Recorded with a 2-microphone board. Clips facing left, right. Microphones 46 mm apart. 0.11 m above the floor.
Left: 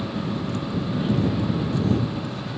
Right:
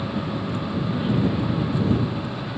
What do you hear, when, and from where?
0.0 s a vehicle: 10° right (ahead or behind)